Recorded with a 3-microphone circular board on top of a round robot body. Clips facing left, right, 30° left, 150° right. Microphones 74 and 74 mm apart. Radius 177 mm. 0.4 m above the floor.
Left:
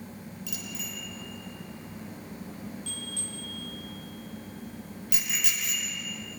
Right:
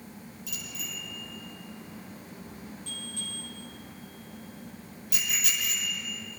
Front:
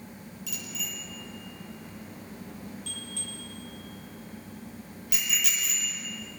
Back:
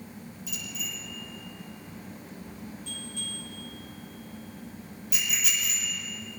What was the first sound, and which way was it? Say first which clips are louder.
A bicycle bell: left 1 dB, even; 55° left.